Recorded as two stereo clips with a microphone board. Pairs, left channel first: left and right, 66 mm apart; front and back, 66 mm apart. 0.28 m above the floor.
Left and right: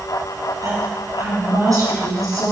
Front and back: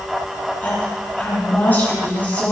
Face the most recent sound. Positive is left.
turn(degrees=-65)